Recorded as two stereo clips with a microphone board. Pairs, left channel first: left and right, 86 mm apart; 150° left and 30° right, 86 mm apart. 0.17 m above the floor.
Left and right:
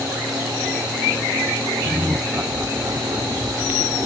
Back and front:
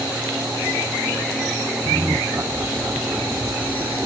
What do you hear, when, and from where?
1.9 s laughter: 15° right, 1.4 m; by 3.8 s 95° right, 2 m